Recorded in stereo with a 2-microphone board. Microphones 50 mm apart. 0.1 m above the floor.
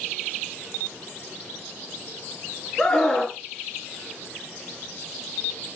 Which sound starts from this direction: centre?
A scream, at 2.8 s.